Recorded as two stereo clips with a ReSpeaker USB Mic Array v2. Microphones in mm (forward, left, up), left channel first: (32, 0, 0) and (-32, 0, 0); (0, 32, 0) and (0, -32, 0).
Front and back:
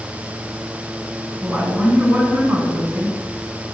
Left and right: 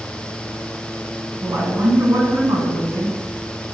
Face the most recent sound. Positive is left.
turn(degrees=-115)